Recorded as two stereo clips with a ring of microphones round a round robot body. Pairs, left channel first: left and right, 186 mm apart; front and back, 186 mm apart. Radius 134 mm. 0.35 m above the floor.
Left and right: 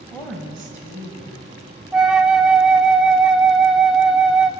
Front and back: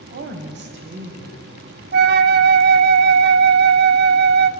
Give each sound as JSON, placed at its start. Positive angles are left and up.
{"t": 0.1, "sound": "a woman speaking", "azimuth_deg": 170, "distance_m": 2.5}
{"t": 1.9, "sound": "a flute", "azimuth_deg": -175, "distance_m": 0.6}